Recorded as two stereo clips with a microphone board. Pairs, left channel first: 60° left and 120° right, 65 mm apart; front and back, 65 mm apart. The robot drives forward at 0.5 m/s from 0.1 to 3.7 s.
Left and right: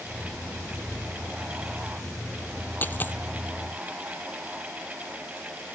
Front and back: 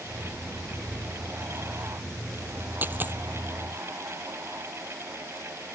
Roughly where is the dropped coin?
Behind left.